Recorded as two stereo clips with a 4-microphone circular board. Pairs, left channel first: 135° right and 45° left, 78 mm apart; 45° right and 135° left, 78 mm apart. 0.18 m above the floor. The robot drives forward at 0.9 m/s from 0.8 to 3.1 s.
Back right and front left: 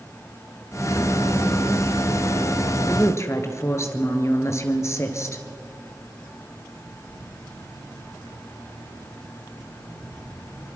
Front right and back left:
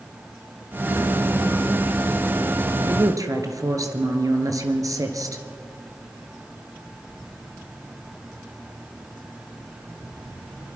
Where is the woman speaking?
175° left, 2.5 m.